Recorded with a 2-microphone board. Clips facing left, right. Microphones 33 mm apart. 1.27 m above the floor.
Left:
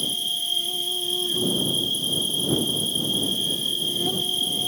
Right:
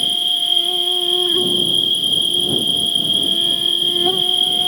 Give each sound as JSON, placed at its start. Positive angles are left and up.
{"t": 0.0, "sound": "an insect", "side_deg": -40}